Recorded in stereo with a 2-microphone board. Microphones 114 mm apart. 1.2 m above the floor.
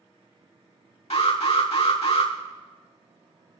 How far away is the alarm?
About 2.5 m.